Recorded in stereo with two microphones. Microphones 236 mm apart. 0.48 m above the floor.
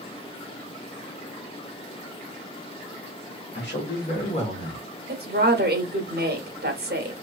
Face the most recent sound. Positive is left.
turn(degrees=-45)  # may be behind; listen again after turning